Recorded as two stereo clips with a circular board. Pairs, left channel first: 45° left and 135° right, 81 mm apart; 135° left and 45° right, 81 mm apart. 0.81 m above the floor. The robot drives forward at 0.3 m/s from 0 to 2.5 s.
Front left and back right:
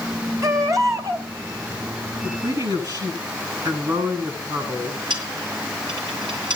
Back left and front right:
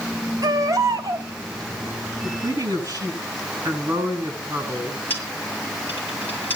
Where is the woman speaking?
100° right, 9.5 m.